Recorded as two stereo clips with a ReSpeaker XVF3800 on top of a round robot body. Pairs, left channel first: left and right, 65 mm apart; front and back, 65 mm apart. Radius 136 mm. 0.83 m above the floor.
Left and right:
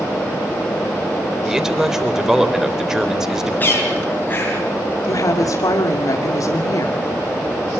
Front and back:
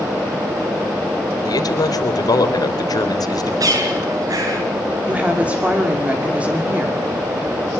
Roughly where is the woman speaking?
Left.